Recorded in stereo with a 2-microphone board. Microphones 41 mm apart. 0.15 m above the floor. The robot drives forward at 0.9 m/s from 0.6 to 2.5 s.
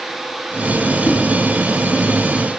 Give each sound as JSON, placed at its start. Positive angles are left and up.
{"t": 1.1, "sound": "a whoosh", "side_deg": 45, "distance_m": 1.3}